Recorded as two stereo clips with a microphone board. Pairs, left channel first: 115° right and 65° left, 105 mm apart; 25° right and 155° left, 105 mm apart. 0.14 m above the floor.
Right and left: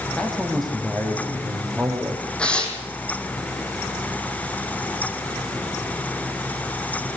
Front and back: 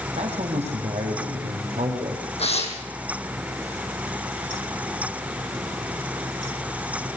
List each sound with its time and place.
0.2 s a man speaking: 165° left, 5 m; by 2.3 s 145° left, 5 m
2.4 s tearing paper: 30° right, 3 m